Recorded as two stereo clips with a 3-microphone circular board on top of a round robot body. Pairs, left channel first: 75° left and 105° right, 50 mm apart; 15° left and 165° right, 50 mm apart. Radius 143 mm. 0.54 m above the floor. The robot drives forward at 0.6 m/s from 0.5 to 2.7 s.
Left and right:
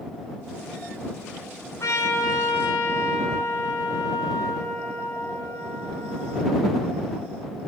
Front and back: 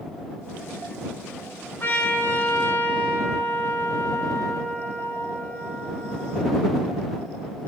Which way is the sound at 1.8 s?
60° left.